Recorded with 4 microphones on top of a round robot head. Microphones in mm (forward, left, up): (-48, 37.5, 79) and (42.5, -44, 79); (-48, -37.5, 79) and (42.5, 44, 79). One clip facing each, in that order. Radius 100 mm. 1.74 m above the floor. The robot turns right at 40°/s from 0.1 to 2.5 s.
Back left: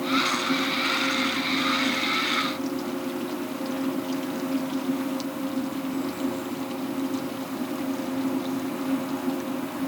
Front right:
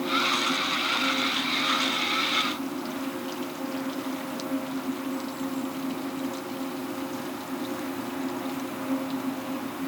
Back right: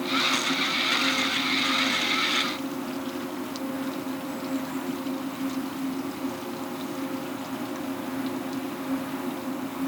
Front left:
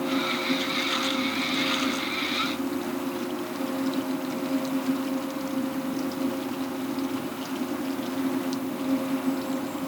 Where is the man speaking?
I don't hear a man speaking.